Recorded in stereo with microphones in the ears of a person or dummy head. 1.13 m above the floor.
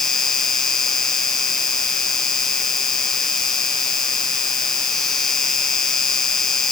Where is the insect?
10° left (ahead or behind).